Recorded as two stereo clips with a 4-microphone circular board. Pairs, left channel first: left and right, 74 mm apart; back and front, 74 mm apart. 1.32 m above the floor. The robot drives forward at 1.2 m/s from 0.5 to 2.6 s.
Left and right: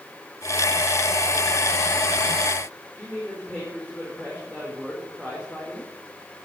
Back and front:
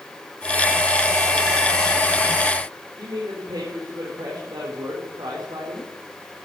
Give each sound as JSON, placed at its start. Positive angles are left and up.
{"t": 3.0, "sound": "a man speaking", "azimuth_deg": 10, "distance_m": 5.0}